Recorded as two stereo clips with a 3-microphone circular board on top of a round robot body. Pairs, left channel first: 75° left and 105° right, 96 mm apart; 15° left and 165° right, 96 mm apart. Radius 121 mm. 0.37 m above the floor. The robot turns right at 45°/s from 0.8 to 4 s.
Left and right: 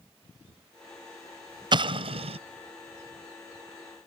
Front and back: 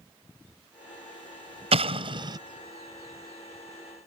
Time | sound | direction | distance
1.7 | an explosion | 145° right | ?